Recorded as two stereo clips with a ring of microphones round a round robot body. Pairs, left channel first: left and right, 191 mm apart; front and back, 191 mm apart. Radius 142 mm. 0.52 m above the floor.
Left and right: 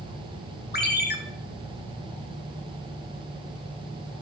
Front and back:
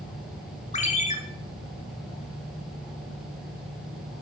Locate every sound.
0.7 s a ringtone: 55° left, 1.3 m